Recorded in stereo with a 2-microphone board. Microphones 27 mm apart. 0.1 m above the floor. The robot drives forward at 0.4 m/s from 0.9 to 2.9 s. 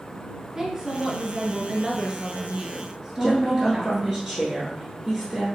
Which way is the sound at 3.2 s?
5° left (ahead or behind).